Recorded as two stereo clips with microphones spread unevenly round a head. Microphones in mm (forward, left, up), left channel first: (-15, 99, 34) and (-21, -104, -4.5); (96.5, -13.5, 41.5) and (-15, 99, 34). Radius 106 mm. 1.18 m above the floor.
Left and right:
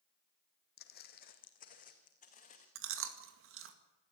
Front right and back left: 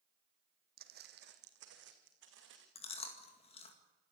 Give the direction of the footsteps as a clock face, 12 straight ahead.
8 o'clock.